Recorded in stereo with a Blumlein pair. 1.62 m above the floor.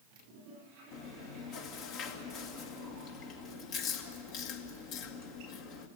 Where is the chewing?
40° left, 1.7 m.